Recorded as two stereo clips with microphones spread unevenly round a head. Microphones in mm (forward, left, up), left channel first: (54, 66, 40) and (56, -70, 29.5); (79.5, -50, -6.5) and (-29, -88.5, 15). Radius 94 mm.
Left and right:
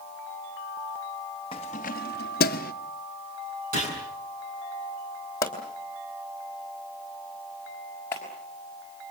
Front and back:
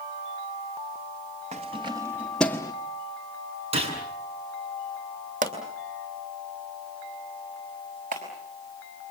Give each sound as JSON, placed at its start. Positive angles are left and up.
{"t": 1.5, "sound": "keys jangling", "azimuth_deg": 155, "distance_m": 0.8}
{"t": 3.7, "sound": "a gunshot", "azimuth_deg": -130, "distance_m": 7.5}
{"t": 5.4, "sound": "a pop", "azimuth_deg": 165, "distance_m": 2.5}
{"t": 8.1, "sound": "a clap", "azimuth_deg": 170, "distance_m": 5.0}